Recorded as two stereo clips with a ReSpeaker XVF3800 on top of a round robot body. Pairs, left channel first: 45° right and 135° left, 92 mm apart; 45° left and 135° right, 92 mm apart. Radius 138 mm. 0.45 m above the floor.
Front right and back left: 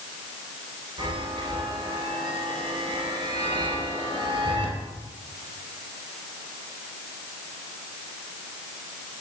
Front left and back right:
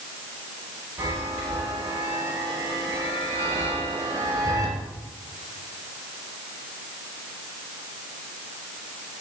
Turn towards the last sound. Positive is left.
turn(degrees=175)